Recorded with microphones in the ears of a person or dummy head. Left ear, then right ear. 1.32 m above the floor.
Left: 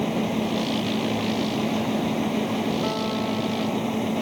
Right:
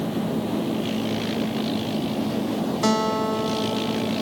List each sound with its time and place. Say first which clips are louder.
0.0 s a fan: left 1 dB; 65° left (ahead or behind)
2.8 s a guitar: right 4 dB; 70° right (ahead or behind)